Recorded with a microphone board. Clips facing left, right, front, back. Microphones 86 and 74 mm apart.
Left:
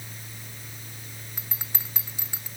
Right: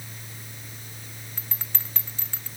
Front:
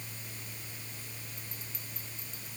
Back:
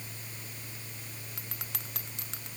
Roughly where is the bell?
Behind.